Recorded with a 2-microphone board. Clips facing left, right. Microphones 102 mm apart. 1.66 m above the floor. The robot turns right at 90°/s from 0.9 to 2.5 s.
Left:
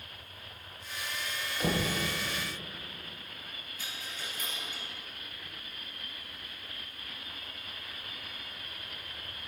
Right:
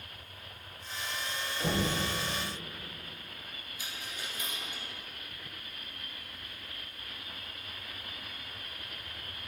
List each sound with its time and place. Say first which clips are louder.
1.6 s knocking: even; 30° left (ahead or behind), 1.2 m; by 1.9 s 45° left (ahead or behind), 1.2 m
3.8 s a dropped coin: even; 15° right (ahead or behind), 2.5 m